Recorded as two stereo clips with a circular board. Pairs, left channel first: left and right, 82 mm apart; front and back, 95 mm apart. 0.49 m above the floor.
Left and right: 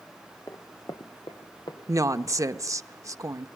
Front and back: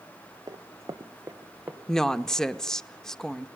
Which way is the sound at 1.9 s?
80° right.